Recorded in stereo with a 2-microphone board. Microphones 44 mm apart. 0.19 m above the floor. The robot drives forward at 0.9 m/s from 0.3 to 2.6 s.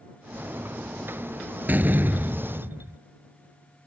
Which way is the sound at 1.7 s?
45° right (ahead or behind).